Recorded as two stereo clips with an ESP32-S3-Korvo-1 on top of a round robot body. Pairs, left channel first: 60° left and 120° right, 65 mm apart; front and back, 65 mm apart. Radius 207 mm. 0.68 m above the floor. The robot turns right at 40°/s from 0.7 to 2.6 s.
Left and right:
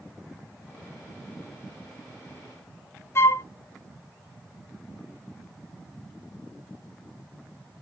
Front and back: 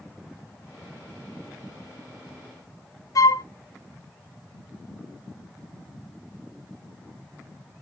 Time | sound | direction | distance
3.1 | a flute | 15° left | 0.7 m